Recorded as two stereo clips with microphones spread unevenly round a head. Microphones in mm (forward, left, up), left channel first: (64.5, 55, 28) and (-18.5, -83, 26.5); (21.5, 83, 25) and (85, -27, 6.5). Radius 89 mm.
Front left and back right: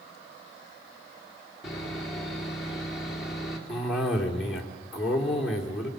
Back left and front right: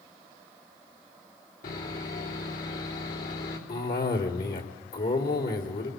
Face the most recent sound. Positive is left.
turn(degrees=150)